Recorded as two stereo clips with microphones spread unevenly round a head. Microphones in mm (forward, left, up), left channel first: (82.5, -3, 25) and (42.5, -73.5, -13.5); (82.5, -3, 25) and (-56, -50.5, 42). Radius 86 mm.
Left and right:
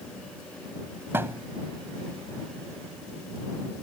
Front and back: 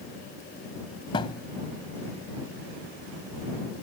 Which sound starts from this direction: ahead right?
A thud, at 1.1 s.